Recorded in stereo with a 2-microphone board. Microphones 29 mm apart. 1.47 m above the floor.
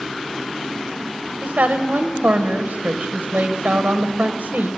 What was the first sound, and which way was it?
A woman speaking, 65° right (ahead or behind).